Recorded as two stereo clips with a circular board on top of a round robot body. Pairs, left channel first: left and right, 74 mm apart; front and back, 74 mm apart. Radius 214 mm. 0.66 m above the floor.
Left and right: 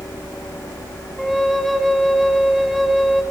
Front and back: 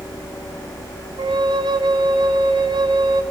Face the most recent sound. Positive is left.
turn(degrees=180)